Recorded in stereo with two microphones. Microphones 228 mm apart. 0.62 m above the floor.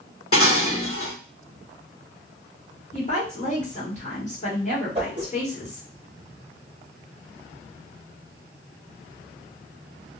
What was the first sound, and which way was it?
Dishes clattering, 75° left (ahead or behind).